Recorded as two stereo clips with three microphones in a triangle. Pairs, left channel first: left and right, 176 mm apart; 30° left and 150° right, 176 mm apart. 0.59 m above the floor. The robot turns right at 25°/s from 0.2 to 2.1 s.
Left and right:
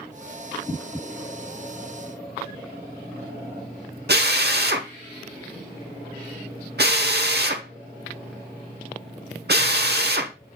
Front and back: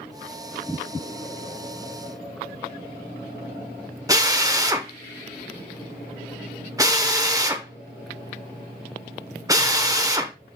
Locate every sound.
4.1 s a drill: 80° right, 0.9 m